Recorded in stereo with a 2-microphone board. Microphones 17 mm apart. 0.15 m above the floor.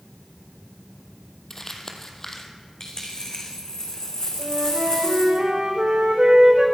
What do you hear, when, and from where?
1.5 s crumpling: 30° left (ahead or behind), 1.7 m
2.8 s a dropped coin: 40° left (ahead or behind), 3 m
4.4 s a flute: 85° right, 5.5 m